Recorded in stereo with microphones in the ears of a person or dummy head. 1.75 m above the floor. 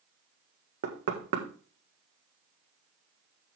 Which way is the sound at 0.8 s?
55° right (ahead or behind).